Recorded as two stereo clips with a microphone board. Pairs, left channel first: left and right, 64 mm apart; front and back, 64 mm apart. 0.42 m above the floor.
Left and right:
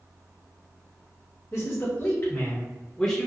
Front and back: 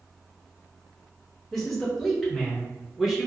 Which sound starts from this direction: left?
A man speaking, at 1.5 s.